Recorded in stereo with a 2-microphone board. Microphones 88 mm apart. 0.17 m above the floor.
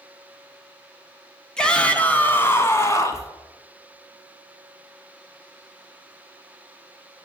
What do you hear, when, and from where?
1.6 s a shout: 10° left (ahead or behind), 1.2 m; by 3.3 s 35° left (ahead or behind), 1.3 m